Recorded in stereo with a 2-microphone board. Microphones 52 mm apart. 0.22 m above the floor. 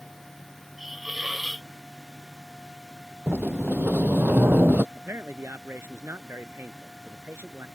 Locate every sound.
0.8 s a hiss: 5° right (ahead or behind)
3.3 s a sliding door: 35° right (ahead or behind)
5.0 s a man speaking: 55° right (ahead or behind)